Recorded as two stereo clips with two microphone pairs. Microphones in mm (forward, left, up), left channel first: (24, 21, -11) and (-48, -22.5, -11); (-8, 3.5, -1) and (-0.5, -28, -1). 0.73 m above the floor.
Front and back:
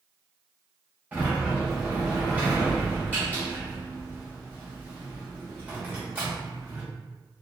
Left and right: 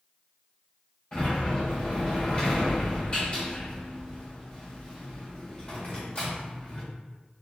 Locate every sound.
1.1 s a sliding door: 150° left, 1.4 m